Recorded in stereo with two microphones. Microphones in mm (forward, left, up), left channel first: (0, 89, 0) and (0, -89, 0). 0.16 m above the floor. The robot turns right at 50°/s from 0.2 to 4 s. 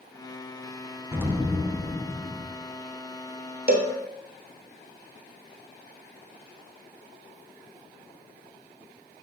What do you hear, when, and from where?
1.1 s an explosion: 15° right (ahead or behind), 0.9 m; by 2.6 s 10° left (ahead or behind), 0.9 m
3.7 s a cowbell: 60° right (ahead or behind), 1.0 m; by 3.9 s 50° right (ahead or behind), 1.0 m